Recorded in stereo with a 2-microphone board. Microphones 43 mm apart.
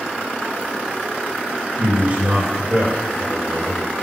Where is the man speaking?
30° right (ahead or behind), 3 m.